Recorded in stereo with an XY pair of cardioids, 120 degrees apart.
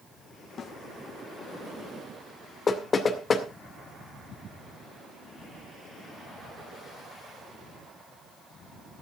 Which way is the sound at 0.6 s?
50° left.